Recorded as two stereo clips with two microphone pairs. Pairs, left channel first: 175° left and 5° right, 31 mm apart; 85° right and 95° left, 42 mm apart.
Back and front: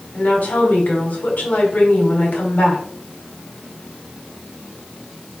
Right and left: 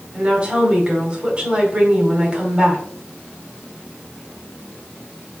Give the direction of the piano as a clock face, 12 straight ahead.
I don't hear a piano.